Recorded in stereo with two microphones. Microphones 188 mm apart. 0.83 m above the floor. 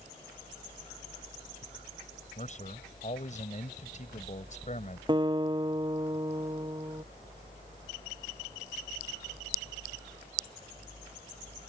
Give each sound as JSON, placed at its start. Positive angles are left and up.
{"t": 2.4, "sound": "a man speaking", "side_deg": 45}
{"t": 5.1, "sound": "a guitar", "side_deg": -25}